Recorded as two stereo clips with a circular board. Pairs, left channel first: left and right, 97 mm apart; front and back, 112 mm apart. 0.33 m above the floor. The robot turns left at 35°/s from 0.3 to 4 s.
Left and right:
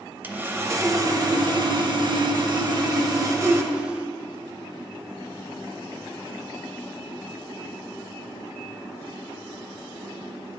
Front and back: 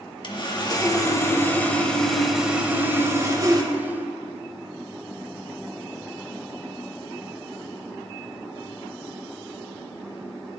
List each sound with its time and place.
0.2 s sawing: 25° right, 0.7 m; by 3.7 s 145° right, 0.7 m